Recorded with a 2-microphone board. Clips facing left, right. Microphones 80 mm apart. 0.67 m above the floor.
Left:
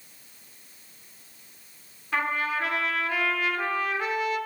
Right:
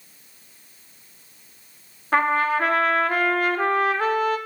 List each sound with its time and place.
2.1 s a trumpet: 50° right (ahead or behind), 1.0 m